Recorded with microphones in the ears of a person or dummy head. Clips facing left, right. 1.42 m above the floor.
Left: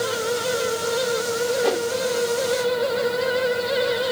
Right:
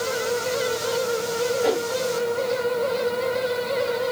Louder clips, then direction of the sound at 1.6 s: Even; 5° left (ahead or behind).